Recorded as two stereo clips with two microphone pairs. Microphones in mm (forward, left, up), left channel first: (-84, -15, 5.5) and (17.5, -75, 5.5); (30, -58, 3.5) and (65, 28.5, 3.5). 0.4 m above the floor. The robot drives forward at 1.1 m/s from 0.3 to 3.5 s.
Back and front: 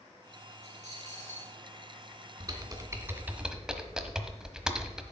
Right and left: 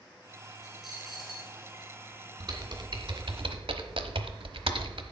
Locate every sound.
0.6 s a dropped coin: 20° right, 3 m; by 1.5 s 25° right, 2 m
2.4 s typing on a keyboard: 25° left, 2 m; by 5.0 s 55° left, 1.1 m